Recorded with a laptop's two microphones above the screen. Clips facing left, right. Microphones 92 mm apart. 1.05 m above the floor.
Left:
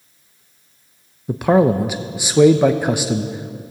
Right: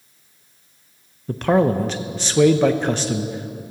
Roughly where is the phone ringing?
I don't hear a phone ringing.